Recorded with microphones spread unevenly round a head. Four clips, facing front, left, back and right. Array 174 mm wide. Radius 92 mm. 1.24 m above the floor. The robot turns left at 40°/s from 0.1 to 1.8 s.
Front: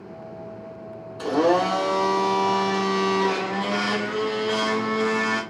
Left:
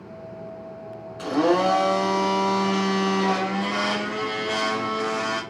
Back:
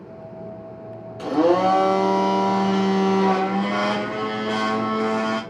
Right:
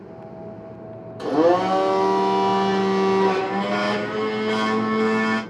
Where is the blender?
115° right, 0.9 m; by 5.4 s 140° right, 0.9 m.